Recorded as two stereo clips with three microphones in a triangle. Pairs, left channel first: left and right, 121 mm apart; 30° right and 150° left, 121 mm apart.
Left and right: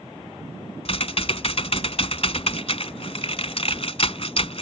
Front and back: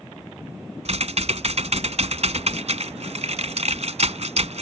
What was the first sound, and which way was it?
Typing on a keyboard, 125° left.